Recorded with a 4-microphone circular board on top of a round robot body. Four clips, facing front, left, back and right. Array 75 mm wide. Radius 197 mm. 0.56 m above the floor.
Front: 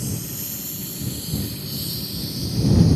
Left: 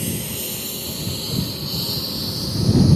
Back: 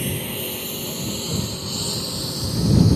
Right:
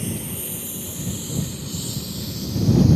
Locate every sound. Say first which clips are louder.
0.0 s a lawn mower: left 2 dB, back 4 dB; 170° left; by 3.0 s 145° left